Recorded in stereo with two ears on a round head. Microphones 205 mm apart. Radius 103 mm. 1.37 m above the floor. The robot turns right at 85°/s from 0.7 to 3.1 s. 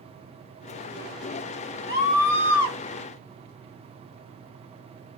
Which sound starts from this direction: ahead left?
A scream, at 1.9 s.